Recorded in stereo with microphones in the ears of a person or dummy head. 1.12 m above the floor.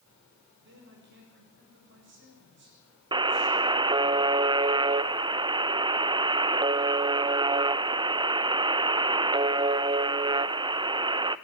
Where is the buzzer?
20° right (ahead or behind), 0.5 m.